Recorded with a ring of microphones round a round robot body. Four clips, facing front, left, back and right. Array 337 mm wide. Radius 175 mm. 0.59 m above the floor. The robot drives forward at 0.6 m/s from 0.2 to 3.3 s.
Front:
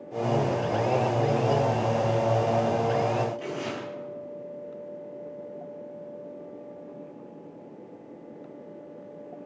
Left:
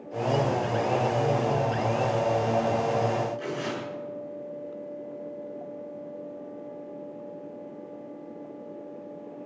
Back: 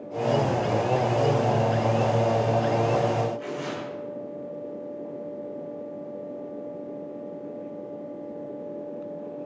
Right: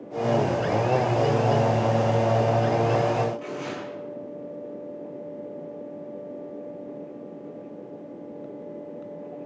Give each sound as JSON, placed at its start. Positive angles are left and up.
{"t": 3.4, "sound": "tearing paper", "azimuth_deg": 30, "distance_m": 9.5}